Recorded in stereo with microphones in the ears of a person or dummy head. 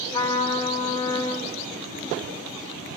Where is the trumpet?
40° left (ahead or behind), 4 m.